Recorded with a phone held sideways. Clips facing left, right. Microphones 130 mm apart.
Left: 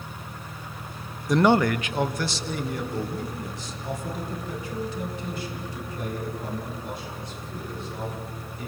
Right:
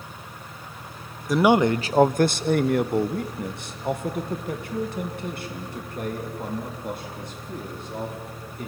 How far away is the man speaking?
About 0.5 m.